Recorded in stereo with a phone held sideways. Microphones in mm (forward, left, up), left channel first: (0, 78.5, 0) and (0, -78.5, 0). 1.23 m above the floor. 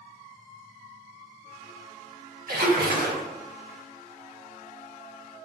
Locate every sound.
2.5 s a splash: 85° right, 0.8 m